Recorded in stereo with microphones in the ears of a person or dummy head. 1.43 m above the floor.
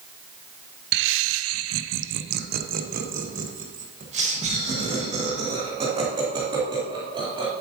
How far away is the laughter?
About 0.6 m.